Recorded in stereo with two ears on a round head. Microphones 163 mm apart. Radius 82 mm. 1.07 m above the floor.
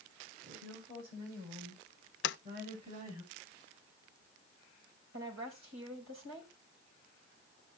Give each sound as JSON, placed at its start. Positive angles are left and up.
{"t": 0.4, "sound": "a woman speaking", "side_deg": -60, "distance_m": 8.0}
{"t": 2.2, "sound": "a sliding door", "side_deg": 65, "distance_m": 0.5}
{"t": 5.1, "sound": "a woman speaking", "side_deg": -80, "distance_m": 6.0}